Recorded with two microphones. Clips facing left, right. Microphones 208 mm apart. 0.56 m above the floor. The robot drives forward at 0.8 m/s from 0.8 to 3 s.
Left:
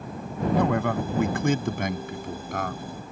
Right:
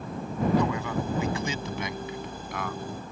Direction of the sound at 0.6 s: 60° left (ahead or behind).